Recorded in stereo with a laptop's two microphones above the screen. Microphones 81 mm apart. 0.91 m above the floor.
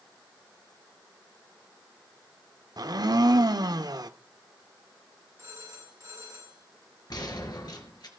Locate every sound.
2.8 s a blender: 55° right (ahead or behind), 0.7 m
5.4 s a phone ringing: 35° right (ahead or behind), 4.5 m
7.1 s a gunshot: 55° left (ahead or behind), 3.5 m